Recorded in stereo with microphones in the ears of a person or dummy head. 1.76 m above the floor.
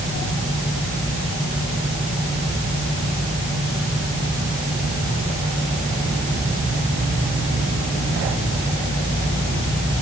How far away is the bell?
I don't hear a bell.